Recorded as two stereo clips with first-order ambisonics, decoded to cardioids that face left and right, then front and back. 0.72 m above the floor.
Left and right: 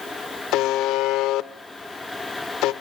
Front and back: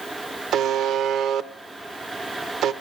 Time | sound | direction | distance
0.5 | a buzzer | 130° left | 0.7 m